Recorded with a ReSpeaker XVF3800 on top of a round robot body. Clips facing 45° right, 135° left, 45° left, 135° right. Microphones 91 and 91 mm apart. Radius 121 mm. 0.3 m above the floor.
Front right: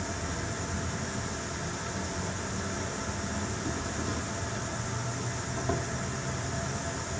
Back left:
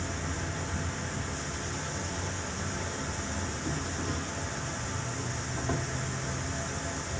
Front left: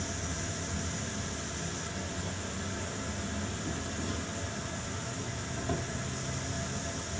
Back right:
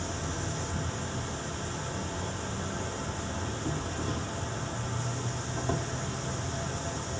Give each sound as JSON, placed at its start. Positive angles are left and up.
{"t": 0.0, "sound": "an insect", "azimuth_deg": -125, "distance_m": 1.0}